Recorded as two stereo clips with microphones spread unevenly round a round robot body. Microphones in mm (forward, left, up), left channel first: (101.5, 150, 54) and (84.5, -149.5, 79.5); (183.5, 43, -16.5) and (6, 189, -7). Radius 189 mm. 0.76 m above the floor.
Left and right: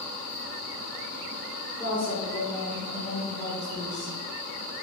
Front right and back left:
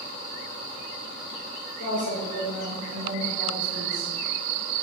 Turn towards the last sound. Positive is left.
turn(degrees=145)